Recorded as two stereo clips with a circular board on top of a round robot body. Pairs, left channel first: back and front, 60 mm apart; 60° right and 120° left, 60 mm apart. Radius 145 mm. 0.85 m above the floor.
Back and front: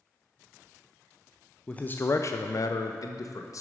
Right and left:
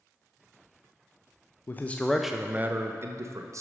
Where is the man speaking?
110° right, 0.5 m; by 3.6 s 150° left, 0.9 m.